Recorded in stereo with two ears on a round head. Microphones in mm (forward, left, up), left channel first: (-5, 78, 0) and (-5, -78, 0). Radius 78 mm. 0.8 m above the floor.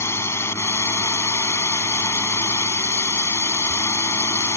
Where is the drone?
15° left (ahead or behind).